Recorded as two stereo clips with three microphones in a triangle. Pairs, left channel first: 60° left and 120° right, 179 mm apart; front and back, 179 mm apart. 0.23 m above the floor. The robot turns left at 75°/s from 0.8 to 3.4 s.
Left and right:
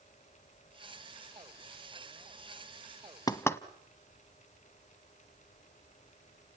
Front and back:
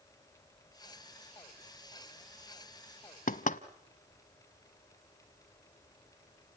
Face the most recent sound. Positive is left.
turn(degrees=-10)